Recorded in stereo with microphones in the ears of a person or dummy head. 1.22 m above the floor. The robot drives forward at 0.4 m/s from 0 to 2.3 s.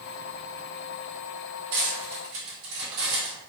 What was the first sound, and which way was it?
Cutlery clinking, 65° right (ahead or behind).